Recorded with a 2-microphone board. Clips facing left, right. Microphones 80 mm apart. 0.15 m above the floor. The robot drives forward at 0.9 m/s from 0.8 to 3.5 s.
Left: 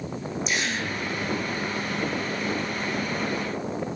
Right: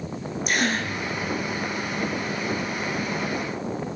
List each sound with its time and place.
0.5 s a gasp: 55° right (ahead or behind), 3 m